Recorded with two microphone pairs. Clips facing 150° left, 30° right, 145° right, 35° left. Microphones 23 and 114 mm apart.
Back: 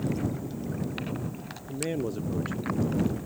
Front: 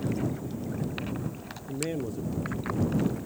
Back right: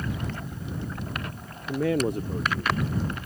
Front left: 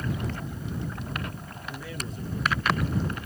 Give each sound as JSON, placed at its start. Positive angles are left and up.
{"t": 1.7, "sound": "a man speaking", "azimuth_deg": -110}